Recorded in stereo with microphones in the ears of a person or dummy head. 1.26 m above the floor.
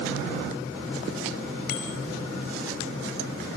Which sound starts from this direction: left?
A bicycle bell, at 1.7 s.